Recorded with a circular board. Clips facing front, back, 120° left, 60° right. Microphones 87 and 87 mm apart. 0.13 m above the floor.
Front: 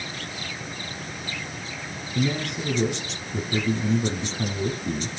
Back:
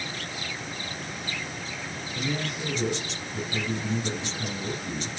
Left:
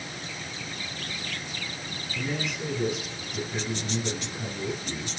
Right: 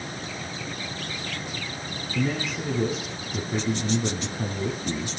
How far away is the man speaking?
About 8.5 m.